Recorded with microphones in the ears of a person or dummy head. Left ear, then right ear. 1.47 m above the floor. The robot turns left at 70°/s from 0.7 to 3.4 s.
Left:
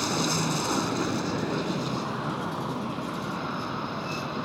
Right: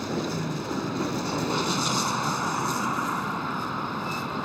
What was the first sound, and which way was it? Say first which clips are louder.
A vehicle: left 4 dB; 25° left.